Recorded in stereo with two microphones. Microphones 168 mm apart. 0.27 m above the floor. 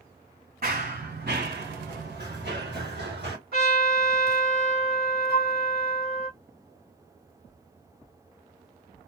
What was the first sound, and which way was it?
Running footsteps, 60° right (ahead or behind).